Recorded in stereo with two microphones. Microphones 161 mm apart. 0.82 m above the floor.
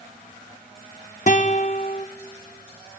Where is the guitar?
50° left (ahead or behind), 0.6 m.